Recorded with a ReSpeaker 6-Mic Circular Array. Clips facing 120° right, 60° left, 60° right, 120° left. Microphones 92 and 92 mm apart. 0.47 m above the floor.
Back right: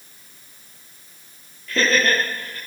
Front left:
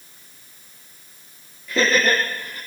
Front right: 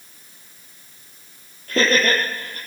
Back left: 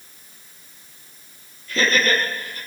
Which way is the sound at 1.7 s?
20° right.